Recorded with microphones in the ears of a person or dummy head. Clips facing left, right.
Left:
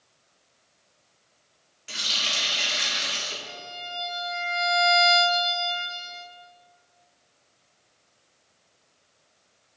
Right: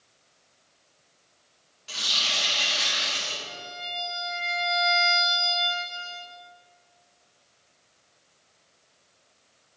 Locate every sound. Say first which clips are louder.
1.9 s a running tap: even; 30° left (ahead or behind), 2 m
3.5 s a violin: even; 5° left (ahead or behind), 1.7 m